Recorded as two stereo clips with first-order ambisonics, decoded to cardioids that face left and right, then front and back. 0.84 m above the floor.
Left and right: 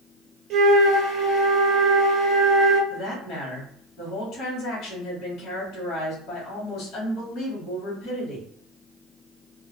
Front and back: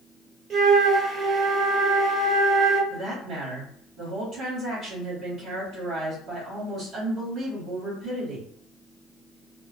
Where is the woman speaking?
130° left, 1.3 m.